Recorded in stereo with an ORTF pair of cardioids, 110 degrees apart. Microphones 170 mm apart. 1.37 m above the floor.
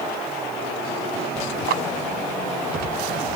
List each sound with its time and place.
1.7 s a clap: 65° right